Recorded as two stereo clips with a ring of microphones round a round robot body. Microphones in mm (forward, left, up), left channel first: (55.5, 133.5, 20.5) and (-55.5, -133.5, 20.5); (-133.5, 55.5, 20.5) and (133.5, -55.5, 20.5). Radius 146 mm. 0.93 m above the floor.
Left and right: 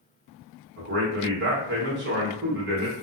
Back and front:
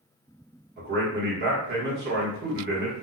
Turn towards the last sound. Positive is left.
turn(degrees=-70)